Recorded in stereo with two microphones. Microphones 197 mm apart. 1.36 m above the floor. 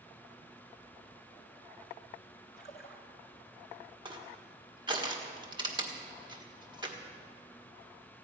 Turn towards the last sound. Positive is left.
turn(degrees=-20)  # may be behind; listen again after turning